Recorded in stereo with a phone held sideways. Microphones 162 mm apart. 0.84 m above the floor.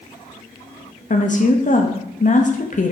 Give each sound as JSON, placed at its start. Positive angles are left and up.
{"t": 1.1, "sound": "a woman speaking", "side_deg": 50, "distance_m": 0.7}